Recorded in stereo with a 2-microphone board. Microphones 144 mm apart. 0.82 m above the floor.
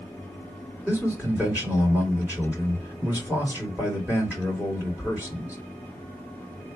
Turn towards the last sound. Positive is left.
turn(degrees=-10)  # may be behind; listen again after turning